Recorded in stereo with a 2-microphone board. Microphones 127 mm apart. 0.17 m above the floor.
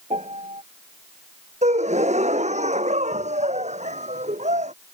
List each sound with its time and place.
0.1 s a piano: 65° right (ahead or behind)
1.6 s a gasp: 75° right (ahead or behind)